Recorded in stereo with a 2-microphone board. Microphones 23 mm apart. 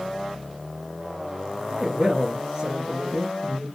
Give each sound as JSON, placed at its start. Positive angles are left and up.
{"t": 1.7, "sound": "a man speaking", "side_deg": -10, "distance_m": 1.4}